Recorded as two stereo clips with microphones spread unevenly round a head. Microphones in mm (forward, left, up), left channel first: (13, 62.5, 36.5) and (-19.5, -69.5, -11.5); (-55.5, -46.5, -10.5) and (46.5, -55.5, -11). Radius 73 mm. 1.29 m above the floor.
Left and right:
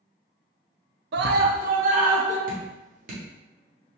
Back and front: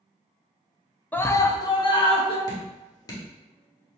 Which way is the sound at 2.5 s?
140° right.